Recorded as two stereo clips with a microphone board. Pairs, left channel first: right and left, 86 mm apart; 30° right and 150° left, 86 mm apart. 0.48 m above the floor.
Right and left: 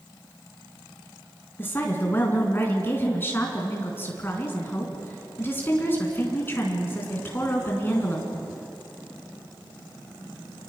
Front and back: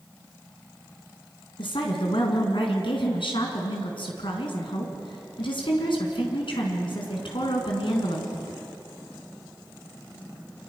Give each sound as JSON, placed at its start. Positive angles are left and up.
{"t": 1.6, "sound": "a woman speaking", "azimuth_deg": -25, "distance_m": 4.5}